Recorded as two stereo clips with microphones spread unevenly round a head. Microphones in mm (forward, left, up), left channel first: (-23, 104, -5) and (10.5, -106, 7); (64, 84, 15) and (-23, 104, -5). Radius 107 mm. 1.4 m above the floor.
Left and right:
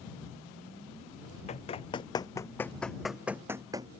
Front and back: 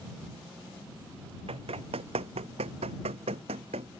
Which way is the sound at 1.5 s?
160° left.